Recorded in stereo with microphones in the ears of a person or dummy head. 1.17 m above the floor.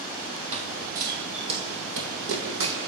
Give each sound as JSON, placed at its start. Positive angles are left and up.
{"t": 0.5, "sound": "running footsteps", "side_deg": -40, "distance_m": 2.0}